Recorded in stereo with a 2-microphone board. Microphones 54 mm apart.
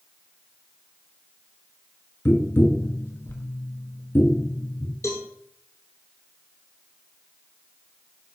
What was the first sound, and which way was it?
Tapping, 45° left (ahead or behind).